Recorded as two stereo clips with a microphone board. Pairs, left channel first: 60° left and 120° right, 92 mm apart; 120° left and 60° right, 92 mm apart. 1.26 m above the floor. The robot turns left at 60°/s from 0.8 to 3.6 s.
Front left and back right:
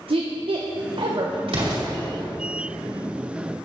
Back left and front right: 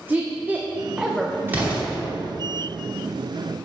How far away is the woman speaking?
About 0.7 m.